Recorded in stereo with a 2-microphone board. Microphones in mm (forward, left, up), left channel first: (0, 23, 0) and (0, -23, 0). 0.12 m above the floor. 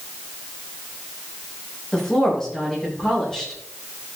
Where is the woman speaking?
15° left (ahead or behind), 6.5 m.